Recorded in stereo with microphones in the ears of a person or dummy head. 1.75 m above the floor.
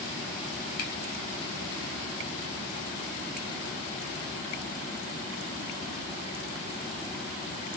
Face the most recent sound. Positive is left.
turn(degrees=45)  # may be behind; listen again after turning